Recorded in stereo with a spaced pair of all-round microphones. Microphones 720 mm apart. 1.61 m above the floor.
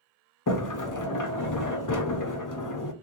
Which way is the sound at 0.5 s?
30° left (ahead or behind).